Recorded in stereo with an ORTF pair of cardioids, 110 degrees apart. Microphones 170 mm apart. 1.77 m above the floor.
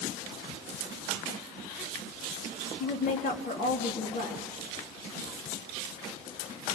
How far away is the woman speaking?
About 4 m.